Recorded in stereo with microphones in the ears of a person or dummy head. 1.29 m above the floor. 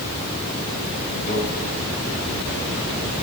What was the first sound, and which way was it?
A microwave, 55° left (ahead or behind).